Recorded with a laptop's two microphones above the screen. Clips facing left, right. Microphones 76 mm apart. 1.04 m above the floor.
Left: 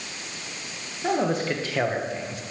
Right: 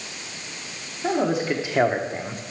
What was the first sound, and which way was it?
A man speaking, 5° left (ahead or behind).